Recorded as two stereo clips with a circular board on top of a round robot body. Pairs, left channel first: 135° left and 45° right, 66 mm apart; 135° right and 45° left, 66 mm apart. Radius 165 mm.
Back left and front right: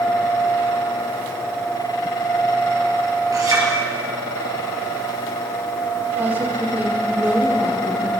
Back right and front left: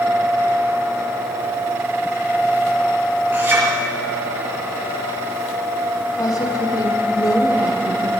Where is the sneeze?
No sneeze in this recording.